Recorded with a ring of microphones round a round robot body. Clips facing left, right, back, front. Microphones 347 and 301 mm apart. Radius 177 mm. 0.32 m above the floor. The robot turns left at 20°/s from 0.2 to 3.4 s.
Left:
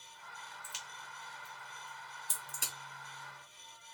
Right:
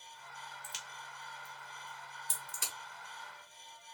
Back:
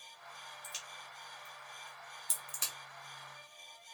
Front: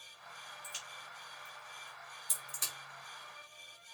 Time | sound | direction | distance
0.6 | a crack | 130° right | 1.2 m